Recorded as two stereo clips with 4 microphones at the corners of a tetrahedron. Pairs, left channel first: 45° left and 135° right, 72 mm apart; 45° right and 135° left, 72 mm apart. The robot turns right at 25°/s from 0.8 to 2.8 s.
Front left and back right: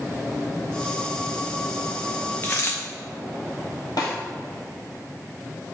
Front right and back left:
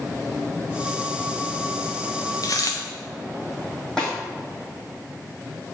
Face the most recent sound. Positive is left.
turn(degrees=35)